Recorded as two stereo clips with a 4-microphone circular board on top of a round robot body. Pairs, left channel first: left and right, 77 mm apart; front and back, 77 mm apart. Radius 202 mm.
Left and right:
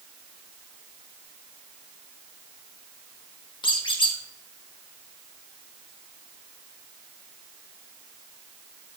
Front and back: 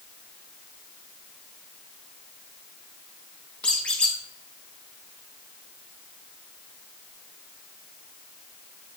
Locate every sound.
3.6 s a squeak: 75° left, 1.3 m